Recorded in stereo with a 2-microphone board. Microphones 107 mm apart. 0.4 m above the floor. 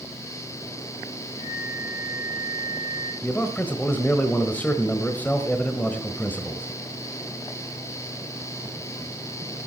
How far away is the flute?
About 9 m.